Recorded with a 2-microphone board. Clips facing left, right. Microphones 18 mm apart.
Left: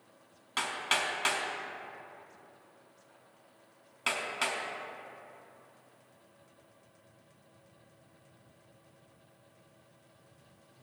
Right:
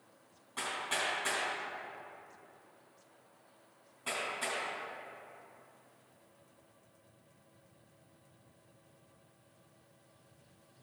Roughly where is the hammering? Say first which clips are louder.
Left 5 dB; left.